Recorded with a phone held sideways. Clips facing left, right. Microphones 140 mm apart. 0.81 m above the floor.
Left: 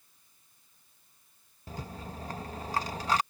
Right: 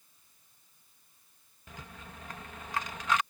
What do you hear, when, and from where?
1.7 s a rattle: 35° left (ahead or behind)